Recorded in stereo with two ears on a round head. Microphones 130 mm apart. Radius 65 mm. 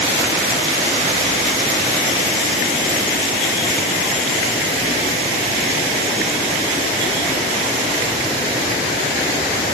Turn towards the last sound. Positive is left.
No sound to turn to.